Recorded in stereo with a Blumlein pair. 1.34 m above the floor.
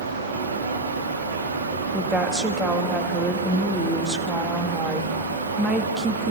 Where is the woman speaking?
15° right, 2 m.